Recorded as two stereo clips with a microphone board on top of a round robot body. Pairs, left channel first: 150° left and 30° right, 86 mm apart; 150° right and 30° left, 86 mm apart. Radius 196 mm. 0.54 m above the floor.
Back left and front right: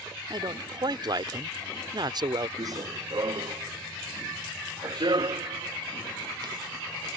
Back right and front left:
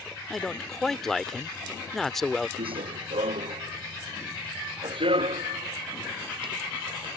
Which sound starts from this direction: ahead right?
A man speaking, at 0.3 s.